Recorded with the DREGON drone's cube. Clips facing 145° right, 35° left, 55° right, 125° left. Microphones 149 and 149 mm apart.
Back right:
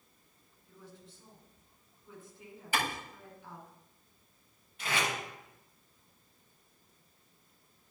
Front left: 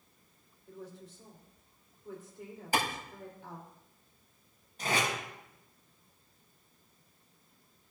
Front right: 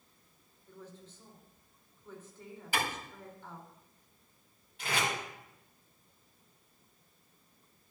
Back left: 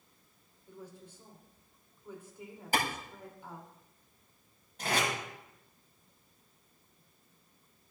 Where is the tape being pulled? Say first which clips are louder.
Front left 2 dB, back left 2 dB; 80° left, 5.5 m.